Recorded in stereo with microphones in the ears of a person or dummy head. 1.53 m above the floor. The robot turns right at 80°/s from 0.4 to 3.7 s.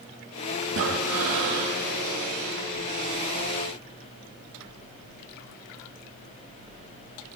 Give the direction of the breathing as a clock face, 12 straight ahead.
4 o'clock.